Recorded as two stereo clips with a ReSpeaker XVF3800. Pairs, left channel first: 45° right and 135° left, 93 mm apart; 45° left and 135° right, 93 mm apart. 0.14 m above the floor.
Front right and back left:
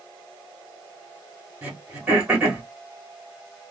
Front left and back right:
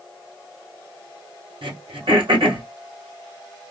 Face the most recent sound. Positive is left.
turn(degrees=-150)